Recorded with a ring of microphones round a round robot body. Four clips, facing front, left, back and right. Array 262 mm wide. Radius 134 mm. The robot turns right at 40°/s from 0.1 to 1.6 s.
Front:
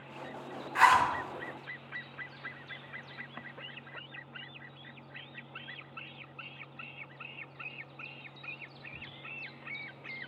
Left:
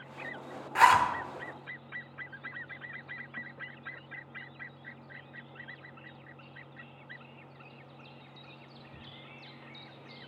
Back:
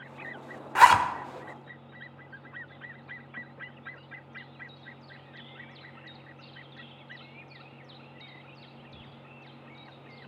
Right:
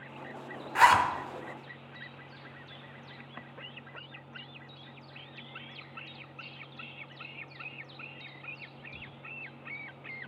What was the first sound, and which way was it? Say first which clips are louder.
A zipper: even, back 5 dB; 175° left.